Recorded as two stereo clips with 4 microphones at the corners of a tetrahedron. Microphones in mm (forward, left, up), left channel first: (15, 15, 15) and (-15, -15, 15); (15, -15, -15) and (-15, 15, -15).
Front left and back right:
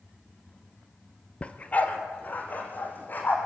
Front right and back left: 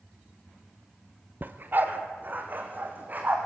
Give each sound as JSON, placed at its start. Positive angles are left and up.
{"t": 1.4, "sound": "a dog barking", "azimuth_deg": 105, "distance_m": 1.3}